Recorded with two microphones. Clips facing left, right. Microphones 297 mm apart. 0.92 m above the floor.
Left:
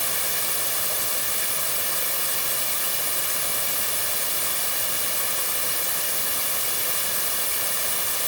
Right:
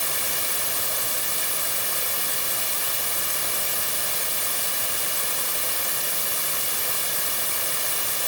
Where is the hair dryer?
I don't hear a hair dryer.